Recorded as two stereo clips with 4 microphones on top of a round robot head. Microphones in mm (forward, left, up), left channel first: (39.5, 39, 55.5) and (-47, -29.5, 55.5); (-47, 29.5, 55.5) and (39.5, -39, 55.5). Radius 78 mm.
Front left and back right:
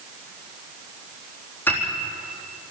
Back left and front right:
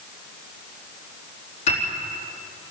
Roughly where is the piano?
Left.